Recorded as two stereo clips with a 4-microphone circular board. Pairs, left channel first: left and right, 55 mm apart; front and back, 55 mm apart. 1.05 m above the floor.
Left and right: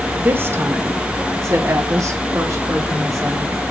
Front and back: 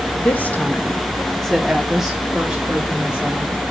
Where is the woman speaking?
45° right, 1.5 m; by 3.6 s 115° right, 3 m.